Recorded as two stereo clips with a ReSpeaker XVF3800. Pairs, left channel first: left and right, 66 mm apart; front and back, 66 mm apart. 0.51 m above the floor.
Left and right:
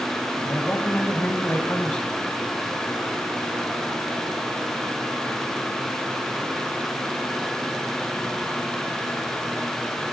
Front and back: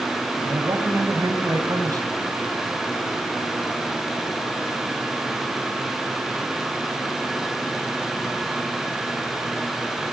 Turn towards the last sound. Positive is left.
turn(degrees=145)